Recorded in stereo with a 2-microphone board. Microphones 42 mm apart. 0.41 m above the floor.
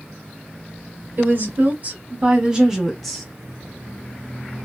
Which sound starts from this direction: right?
A woman speaking, at 1.2 s.